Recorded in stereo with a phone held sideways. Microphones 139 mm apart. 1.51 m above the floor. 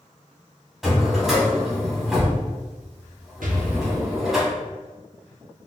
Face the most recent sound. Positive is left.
turn(degrees=-85)